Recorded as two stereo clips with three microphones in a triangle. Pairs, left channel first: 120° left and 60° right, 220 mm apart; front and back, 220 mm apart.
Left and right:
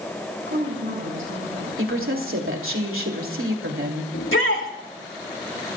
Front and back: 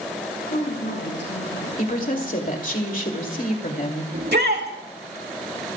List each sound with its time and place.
0.5 s a woman speaking: 35° right, 6.5 m
1.8 s a woman speaking: 50° right, 2.5 m
4.1 s a shout: 140° left, 3 m